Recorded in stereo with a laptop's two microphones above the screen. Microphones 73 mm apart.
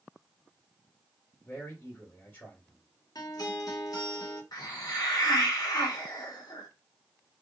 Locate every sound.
1.4 s a man speaking: 25° left (ahead or behind), 2 m
3.1 s a guitar: 65° left (ahead or behind), 0.9 m
4.5 s a hiss: 70° left (ahead or behind), 1.1 m